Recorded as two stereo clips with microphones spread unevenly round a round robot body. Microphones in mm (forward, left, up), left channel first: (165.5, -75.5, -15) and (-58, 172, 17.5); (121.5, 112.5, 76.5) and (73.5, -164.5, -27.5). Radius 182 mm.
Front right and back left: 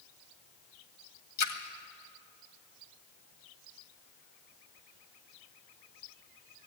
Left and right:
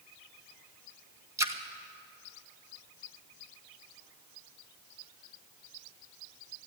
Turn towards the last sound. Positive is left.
turn(degrees=-20)